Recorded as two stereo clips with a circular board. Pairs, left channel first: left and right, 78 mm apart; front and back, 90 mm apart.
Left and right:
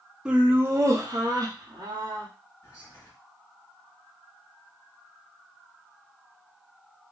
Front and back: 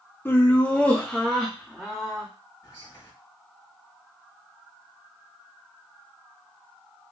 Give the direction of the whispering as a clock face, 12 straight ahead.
10 o'clock.